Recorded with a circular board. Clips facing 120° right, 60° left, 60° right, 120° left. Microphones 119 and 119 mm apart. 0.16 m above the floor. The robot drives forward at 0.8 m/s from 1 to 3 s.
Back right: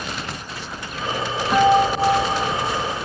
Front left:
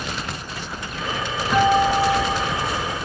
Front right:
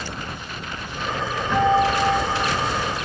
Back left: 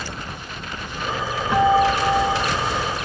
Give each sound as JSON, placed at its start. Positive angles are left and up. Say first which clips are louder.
{"t": 1.5, "sound": "a guitar", "louder": "back right 1 dB, back left 2 dB", "azimuth_deg": -170, "distance_m": 6.0}